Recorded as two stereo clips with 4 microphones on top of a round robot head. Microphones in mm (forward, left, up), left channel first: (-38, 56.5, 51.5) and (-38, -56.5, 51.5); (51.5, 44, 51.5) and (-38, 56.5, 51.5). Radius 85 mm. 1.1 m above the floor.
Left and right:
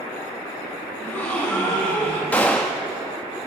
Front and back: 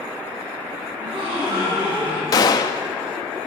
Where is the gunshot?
15° left, 0.5 m.